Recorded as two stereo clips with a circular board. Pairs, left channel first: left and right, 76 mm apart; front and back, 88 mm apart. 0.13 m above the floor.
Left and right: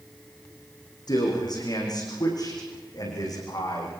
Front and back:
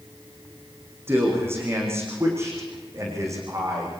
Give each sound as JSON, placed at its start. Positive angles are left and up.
{"t": 1.1, "sound": "a man speaking", "azimuth_deg": 120, "distance_m": 9.0}